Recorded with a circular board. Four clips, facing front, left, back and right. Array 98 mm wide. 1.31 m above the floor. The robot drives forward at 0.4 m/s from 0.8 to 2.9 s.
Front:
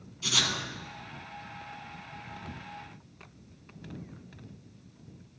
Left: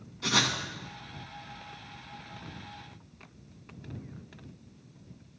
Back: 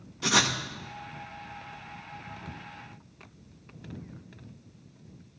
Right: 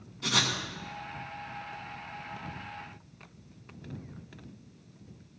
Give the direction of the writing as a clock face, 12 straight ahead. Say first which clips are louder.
Left 2 dB, back 7 dB; 6 o'clock.